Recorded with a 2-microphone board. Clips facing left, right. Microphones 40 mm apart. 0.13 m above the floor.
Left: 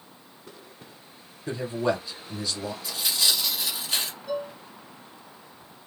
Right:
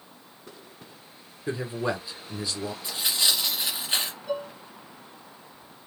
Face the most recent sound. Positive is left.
turn(degrees=-10)  # may be behind; listen again after turning